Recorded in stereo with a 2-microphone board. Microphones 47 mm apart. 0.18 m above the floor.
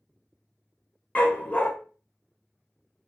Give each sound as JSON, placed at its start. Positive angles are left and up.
{"t": 1.1, "sound": "a dog barking", "side_deg": 30, "distance_m": 0.6}